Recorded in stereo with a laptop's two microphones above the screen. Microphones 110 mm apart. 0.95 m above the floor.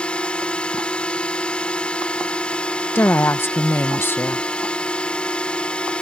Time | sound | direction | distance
0.0 | a drone | 10° left (ahead or behind) | ?
3.0 | a woman speaking | 20° left (ahead or behind) | ?